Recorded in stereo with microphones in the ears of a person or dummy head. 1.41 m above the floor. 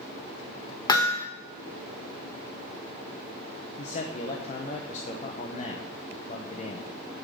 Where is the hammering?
30° left (ahead or behind), 1.1 m.